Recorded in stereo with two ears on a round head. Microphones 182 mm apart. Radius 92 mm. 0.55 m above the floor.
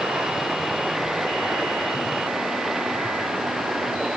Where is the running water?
Centre (ahead or behind).